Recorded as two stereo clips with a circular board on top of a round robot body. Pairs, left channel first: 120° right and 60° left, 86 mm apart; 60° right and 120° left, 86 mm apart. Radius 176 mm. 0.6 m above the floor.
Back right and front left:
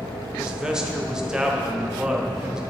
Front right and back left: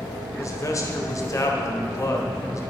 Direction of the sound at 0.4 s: 20° right.